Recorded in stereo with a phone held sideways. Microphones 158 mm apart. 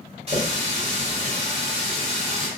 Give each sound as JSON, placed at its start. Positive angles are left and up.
{"t": 0.3, "sound": "a running tap", "side_deg": -40, "distance_m": 1.3}